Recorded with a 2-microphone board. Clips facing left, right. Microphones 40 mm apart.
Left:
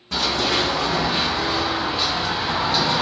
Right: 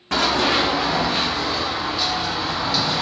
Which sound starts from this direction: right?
Running footsteps, at 0.1 s.